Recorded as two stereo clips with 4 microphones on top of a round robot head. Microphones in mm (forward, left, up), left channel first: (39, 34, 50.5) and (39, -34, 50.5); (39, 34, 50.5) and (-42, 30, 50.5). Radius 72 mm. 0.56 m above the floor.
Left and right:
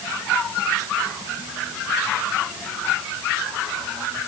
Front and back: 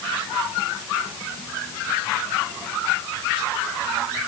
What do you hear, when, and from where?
Only background noise.